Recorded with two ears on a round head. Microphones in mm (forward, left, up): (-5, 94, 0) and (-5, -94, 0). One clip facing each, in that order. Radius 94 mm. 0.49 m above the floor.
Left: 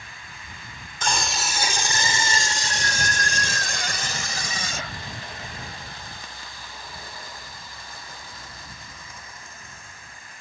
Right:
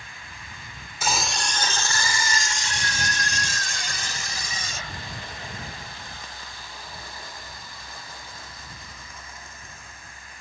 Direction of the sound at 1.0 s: 5° right (ahead or behind).